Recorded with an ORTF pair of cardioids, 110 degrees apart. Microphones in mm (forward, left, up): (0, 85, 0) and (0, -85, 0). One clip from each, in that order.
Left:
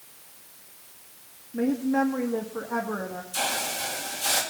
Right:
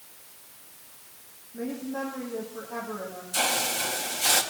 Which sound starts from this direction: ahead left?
A woman speaking, at 1.5 s.